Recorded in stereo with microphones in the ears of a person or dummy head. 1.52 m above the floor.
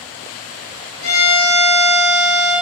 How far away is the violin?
About 2.5 m.